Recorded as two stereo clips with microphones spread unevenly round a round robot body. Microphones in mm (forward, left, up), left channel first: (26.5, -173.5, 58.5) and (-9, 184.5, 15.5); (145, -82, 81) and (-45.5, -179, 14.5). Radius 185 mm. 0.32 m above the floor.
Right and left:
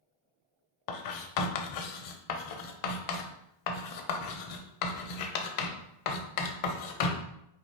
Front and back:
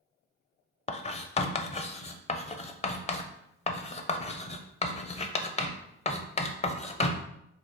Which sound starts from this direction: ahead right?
Writing, at 0.9 s.